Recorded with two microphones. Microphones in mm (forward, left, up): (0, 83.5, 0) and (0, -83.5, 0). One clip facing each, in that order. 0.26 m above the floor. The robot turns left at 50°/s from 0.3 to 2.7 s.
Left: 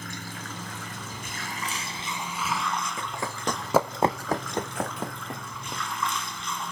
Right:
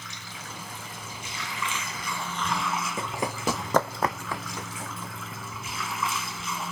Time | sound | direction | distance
0.0 | running water | 115° left | 1.9 m
3.0 | running footsteps | 25° right (ahead or behind) | 1.3 m